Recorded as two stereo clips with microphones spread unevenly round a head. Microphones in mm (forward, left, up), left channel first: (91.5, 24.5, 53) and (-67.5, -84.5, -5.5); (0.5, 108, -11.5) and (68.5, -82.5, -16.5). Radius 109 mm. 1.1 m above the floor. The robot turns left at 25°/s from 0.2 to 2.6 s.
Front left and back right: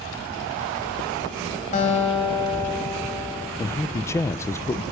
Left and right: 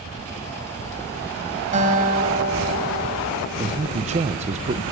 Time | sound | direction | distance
1.7 | a guitar | 15° right | 4 m
3.6 | a man speaking | 60° right | 0.7 m